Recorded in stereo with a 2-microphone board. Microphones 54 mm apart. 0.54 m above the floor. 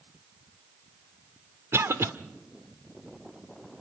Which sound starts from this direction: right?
A cough, at 1.7 s.